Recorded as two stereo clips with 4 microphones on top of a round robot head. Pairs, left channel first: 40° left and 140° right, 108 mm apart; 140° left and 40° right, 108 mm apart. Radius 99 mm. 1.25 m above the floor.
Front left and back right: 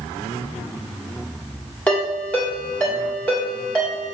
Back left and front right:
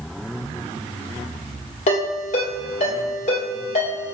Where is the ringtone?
120° left, 1.4 m.